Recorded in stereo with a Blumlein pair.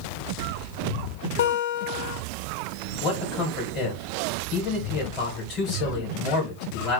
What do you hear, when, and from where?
1.4 s a guitar: 55° left, 0.8 m
3.0 s a man speaking: 25° left, 1.7 m